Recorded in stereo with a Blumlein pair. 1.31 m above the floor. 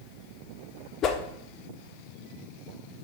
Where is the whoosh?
30° left, 0.9 m.